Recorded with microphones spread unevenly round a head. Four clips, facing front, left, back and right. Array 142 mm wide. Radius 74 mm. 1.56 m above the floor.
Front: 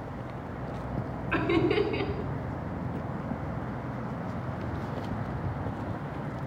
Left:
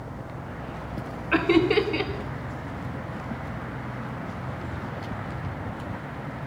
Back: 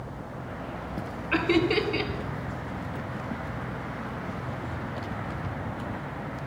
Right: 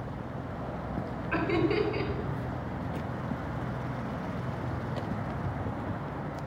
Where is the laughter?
100° left, 1.3 m.